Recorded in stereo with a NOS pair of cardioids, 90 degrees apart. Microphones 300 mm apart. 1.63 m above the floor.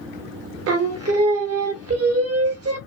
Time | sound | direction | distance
0.7 | singing | 55° right | 0.7 m